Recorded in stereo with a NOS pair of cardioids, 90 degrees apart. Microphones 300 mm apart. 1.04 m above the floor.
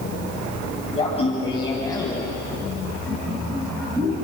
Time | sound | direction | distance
0.9 | laughter | 20° left | 6.5 m